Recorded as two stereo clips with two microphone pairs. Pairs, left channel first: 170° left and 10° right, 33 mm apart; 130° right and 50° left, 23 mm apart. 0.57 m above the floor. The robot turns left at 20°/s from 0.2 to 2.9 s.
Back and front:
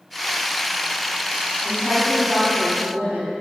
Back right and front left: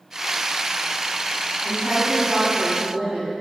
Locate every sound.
1.6 s a woman speaking: 30° left, 4 m; by 3.3 s straight ahead, 4 m